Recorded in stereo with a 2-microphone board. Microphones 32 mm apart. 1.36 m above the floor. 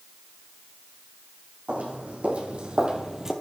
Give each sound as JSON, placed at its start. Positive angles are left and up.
{"t": 1.7, "sound": "footsteps", "side_deg": -50, "distance_m": 3.0}